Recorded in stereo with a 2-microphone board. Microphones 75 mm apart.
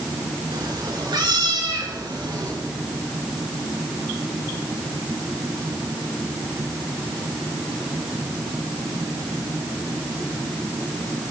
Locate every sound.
0.5 s a cat meowing: 75° right (ahead or behind), 4 m; by 2.5 s 80° right, 5.5 m